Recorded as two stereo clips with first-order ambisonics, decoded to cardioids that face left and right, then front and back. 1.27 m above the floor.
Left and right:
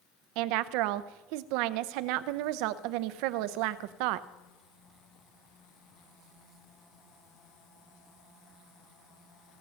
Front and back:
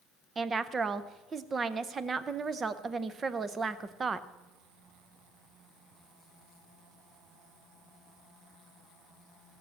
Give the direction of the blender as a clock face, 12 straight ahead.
I don't hear a blender.